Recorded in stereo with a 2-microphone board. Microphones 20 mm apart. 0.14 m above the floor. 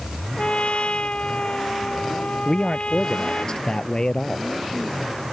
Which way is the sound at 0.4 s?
70° left (ahead or behind).